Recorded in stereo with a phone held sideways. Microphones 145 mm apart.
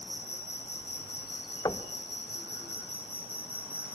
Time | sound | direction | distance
0.0 | an insect | 35° right (ahead or behind) | 4.5 m
1.6 | knocking | 25° left (ahead or behind) | 1.2 m